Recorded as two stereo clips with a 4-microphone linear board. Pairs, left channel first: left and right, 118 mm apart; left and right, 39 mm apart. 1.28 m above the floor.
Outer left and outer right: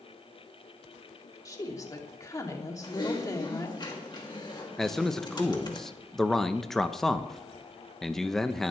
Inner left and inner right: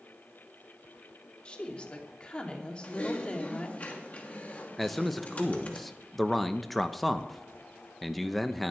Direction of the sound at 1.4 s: 30° left (ahead or behind).